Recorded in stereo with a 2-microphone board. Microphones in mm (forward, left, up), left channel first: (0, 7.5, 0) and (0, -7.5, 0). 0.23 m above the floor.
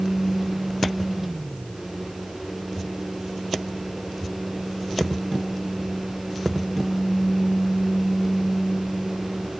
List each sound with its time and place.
Only background noise.